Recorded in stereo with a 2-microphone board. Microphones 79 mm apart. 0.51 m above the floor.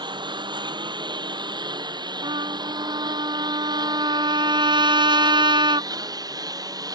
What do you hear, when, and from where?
0.0 s a lawn mower: 70° right (ahead or behind); by 7.0 s 50° right (ahead or behind)
2.2 s a trumpet: 80° right